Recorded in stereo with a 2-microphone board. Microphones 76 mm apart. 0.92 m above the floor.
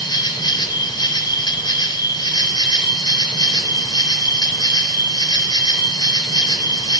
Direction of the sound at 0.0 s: 70° left (ahead or behind).